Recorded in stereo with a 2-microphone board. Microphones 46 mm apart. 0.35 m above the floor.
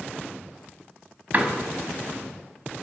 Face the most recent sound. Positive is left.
turn(degrees=-35)  # may be behind; listen again after turning